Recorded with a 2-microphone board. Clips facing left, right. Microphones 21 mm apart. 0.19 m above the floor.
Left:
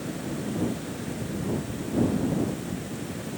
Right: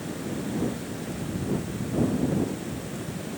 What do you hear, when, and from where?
Only background noise.